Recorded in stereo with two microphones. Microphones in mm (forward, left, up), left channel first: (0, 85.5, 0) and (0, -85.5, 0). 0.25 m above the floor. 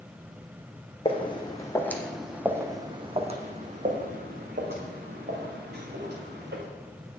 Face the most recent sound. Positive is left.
turn(degrees=-75)  # may be behind; listen again after turning